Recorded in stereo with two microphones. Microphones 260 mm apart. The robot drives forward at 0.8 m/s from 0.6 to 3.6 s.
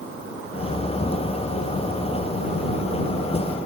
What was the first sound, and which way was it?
Only background noise.